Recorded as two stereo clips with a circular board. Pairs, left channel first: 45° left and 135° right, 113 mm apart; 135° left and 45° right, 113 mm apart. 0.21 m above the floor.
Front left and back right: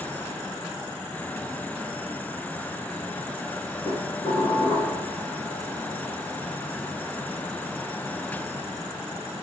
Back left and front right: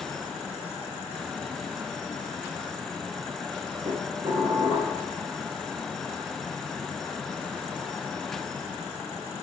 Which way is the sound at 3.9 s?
Straight ahead.